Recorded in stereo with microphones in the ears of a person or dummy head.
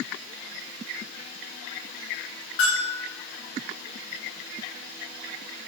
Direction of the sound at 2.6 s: 25° left (ahead or behind).